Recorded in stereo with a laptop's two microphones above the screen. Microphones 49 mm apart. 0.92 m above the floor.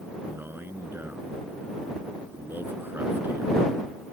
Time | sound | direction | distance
0.2 | a man speaking | 45° right (ahead or behind) | ?